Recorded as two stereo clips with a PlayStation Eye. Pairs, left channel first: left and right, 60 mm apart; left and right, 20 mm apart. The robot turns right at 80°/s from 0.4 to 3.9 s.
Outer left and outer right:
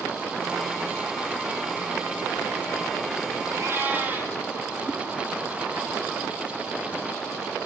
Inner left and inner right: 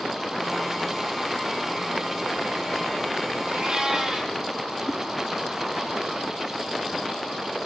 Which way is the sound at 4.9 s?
Centre (ahead or behind).